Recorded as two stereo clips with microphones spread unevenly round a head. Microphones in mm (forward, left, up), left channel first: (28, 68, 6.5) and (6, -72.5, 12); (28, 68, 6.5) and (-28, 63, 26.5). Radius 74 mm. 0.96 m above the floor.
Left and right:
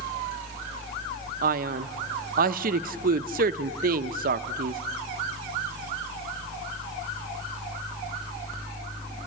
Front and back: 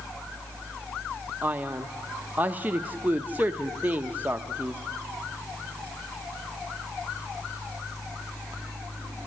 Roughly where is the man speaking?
Right.